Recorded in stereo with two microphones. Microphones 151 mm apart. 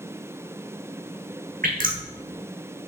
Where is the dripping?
65° right (ahead or behind), 1.9 m.